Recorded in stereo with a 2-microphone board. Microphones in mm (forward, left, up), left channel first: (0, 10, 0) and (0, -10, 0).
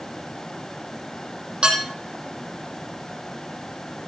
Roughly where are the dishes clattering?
Right.